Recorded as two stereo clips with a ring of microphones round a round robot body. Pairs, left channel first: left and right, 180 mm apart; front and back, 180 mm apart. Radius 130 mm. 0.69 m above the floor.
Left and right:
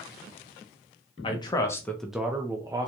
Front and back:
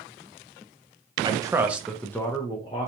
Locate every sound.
1.2 s a man speaking: 130° left, 0.8 m; by 2.9 s 35° right, 0.8 m